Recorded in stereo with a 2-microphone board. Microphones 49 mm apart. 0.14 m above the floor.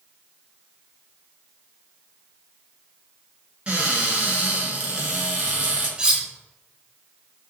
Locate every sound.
3.7 s a cupboard door: 35° right (ahead or behind), 1.6 m
6.0 s cutlery clinking: 20° right (ahead or behind), 0.8 m